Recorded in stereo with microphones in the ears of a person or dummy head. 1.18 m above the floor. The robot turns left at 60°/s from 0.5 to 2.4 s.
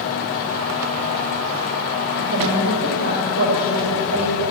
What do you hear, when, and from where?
2.2 s a woman speaking: 70° right (ahead or behind), 4.5 m; by 4.5 s 60° right (ahead or behind), 4.5 m